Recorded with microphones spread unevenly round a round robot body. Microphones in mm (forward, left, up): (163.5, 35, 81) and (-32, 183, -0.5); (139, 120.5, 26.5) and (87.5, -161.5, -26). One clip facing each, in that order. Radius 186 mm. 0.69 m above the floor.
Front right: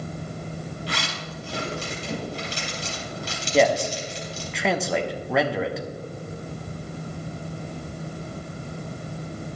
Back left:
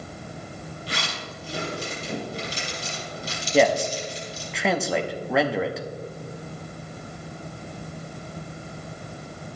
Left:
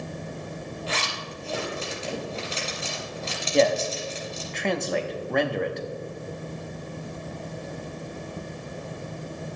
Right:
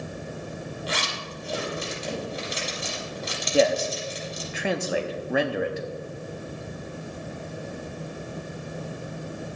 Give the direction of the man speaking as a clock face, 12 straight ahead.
5 o'clock.